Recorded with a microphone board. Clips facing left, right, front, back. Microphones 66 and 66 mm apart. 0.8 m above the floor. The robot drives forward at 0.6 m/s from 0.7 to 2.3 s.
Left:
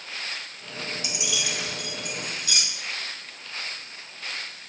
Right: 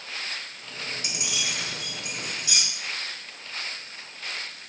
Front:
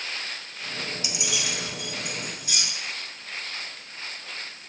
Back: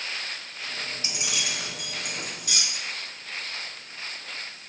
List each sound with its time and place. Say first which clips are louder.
1.0 s keys jangling: left 1 dB, even; 120° right, 0.5 m; by 2.6 s 160° right, 1.1 m